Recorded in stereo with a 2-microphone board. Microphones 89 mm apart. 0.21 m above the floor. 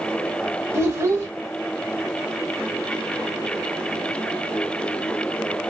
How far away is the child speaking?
About 0.6 m.